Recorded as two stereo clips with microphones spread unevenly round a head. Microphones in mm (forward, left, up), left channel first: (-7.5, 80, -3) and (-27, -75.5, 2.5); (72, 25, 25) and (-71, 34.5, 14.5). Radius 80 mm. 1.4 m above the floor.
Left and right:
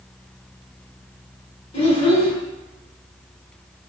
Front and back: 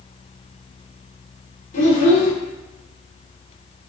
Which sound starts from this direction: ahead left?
A child speaking, at 1.7 s.